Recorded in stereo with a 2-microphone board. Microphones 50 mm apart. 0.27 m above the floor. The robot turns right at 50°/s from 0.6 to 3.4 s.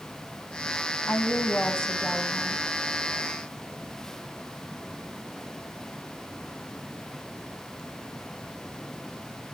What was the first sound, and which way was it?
A woman speaking, 115° left.